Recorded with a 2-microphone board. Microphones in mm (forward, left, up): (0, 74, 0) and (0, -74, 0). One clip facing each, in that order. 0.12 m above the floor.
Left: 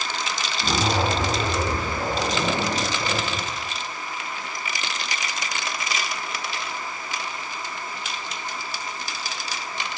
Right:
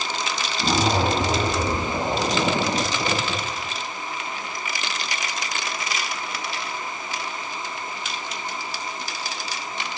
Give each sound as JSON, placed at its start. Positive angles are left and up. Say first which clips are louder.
{"t": 0.6, "sound": "a zipper", "louder": "right 2 dB", "side_deg": -30, "distance_m": 3.0}